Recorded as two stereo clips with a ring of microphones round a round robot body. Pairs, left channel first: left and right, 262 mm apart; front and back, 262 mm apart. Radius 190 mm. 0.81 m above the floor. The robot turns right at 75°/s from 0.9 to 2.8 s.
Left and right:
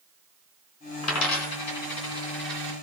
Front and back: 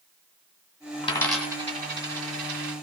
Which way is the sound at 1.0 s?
70° left.